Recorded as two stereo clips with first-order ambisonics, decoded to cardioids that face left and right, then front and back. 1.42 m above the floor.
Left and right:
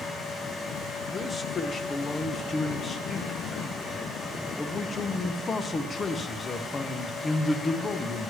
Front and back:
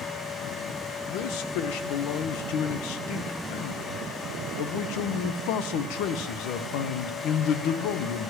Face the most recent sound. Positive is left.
turn(degrees=20)